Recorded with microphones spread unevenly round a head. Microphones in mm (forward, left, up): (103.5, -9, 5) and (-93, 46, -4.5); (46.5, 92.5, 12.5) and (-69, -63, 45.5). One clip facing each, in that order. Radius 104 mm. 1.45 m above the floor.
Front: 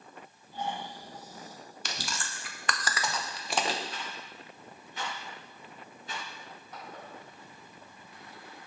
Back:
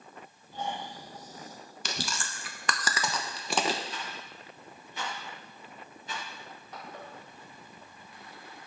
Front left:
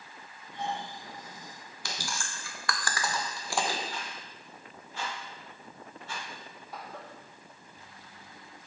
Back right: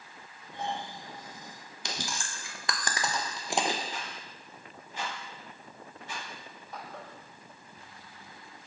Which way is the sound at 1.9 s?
165° left.